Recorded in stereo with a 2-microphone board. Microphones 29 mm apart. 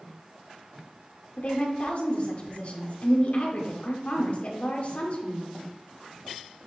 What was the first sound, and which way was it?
A woman speaking, 50° left (ahead or behind).